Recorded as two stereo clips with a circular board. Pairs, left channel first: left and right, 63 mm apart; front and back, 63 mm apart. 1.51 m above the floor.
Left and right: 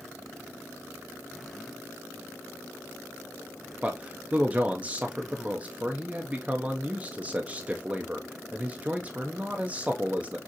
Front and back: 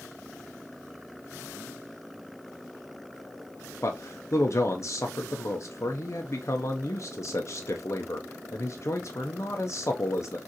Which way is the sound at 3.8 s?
25° right.